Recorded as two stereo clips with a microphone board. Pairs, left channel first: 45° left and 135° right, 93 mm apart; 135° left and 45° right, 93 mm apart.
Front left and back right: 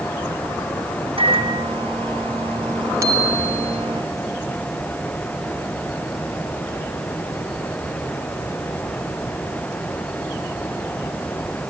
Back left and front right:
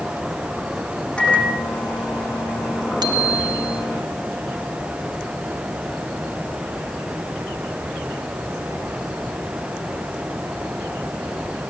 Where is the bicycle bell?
80° right, 2 m.